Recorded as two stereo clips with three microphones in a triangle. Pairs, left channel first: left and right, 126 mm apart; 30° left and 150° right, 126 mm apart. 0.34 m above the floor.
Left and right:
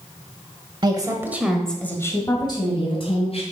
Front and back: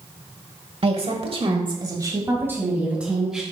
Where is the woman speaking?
130° right, 1.4 m; by 3.4 s 125° left, 2.5 m.